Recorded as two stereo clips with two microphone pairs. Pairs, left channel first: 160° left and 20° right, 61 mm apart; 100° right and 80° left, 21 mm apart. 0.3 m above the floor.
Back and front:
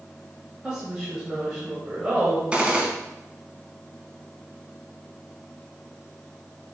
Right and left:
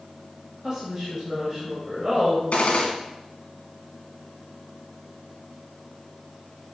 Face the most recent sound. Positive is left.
turn(degrees=-95)